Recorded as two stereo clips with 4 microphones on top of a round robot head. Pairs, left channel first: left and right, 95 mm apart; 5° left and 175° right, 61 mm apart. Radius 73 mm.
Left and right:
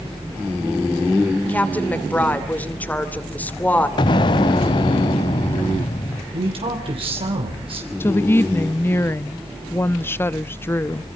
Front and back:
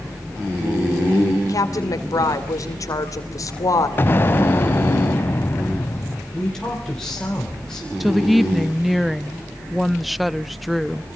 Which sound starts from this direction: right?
A man speaking, at 6.3 s.